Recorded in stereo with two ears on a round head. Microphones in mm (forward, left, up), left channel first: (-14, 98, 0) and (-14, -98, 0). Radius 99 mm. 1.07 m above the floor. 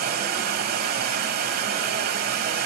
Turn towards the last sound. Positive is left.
turn(degrees=-45)  # may be behind; listen again after turning